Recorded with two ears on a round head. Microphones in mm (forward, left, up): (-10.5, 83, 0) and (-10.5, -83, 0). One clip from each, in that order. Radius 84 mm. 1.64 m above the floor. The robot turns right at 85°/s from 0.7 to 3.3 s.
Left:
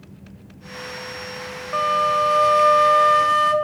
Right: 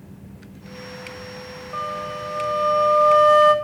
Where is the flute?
45° left, 0.6 m; by 3.5 s straight behind, 0.6 m.